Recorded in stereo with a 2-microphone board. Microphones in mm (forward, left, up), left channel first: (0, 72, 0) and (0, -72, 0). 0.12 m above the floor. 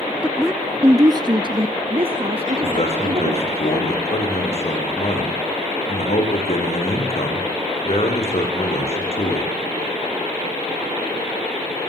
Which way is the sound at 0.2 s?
10° left (ahead or behind).